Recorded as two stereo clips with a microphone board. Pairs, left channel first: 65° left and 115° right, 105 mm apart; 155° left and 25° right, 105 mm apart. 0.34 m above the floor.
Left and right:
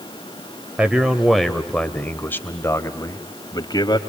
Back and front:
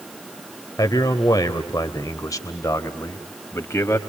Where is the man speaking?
175° left, 1.7 m; by 4.0 s 100° left, 2 m.